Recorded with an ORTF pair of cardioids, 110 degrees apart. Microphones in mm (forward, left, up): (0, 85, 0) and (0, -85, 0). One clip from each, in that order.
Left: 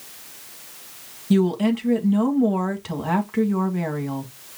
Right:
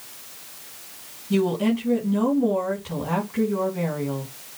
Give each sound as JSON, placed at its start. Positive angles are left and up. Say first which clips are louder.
{"t": 1.3, "sound": "a woman speaking", "louder": "left 1 dB", "azimuth_deg": 60, "distance_m": 2.0}